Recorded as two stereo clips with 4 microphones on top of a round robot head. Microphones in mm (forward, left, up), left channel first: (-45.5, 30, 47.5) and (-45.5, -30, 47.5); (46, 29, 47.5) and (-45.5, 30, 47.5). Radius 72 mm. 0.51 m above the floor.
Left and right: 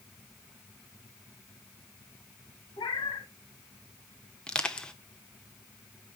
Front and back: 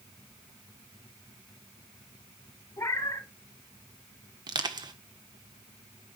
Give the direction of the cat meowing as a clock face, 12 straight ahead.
10 o'clock.